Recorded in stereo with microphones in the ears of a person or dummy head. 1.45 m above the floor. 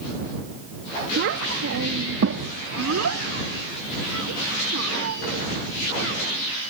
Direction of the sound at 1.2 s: 60° right (ahead or behind).